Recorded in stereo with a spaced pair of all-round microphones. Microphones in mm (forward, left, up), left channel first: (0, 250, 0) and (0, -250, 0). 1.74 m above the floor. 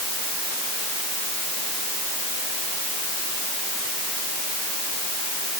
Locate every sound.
Only background noise.